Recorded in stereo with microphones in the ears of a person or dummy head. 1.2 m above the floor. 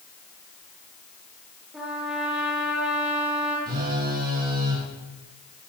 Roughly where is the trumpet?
Centre.